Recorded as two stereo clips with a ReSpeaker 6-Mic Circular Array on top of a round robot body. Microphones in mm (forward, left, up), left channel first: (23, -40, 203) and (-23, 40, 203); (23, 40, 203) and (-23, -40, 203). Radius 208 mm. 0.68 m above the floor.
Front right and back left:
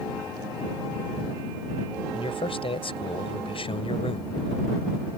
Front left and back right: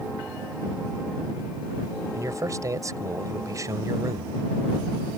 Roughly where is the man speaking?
Ahead right.